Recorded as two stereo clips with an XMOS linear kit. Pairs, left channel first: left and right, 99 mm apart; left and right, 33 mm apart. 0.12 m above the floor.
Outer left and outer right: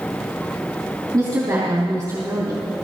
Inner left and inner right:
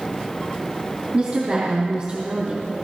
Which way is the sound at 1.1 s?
40° right (ahead or behind).